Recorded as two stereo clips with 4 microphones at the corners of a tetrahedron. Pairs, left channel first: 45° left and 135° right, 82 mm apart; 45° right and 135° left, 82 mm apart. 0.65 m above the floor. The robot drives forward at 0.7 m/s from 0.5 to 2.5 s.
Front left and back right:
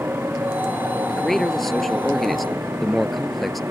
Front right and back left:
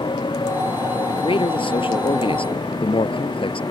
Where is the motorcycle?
70° right; by 3.7 s 75° right.